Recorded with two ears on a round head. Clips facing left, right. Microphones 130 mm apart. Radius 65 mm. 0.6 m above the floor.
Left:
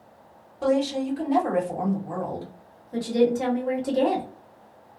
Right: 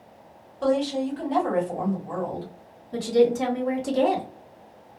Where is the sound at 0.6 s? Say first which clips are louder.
Even; 10° left (ahead or behind), 1.2 m.